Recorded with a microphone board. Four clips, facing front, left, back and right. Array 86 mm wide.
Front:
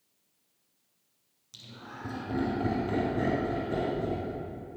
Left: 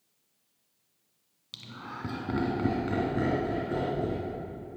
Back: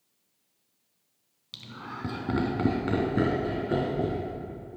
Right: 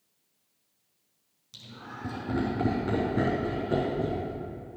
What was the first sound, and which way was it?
Laughter, 140° left.